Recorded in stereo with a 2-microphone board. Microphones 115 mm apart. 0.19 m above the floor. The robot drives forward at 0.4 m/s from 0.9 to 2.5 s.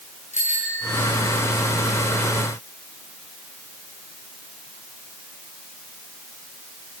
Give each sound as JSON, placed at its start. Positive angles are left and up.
{"t": 0.3, "sound": "a bicycle bell", "side_deg": 70, "distance_m": 9.5}